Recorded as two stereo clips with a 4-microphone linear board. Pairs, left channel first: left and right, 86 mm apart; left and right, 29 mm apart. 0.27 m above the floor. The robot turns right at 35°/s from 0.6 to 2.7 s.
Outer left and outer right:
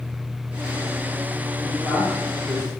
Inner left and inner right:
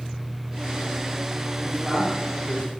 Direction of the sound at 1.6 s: 40° left (ahead or behind).